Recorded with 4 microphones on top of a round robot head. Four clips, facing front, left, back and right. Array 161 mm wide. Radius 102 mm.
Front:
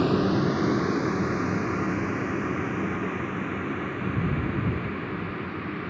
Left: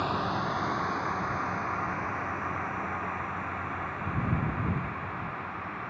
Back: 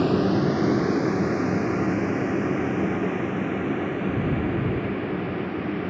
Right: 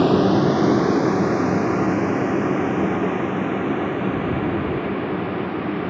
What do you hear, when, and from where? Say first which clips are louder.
0.0 s a vehicle: right 14 dB, back 2 dB; 85° right; by 5.9 s 105° right